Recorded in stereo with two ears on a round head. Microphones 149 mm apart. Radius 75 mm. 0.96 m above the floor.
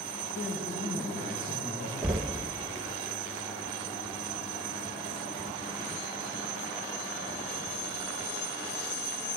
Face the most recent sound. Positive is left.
turn(degrees=-5)  # may be behind; listen again after turning